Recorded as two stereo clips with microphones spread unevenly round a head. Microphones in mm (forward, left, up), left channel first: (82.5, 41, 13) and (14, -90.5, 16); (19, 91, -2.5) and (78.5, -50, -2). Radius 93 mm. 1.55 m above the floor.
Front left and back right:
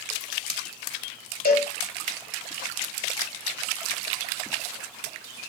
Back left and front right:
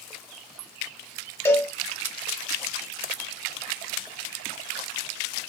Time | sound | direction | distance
1.4 | a cowbell | 40° left | 0.7 m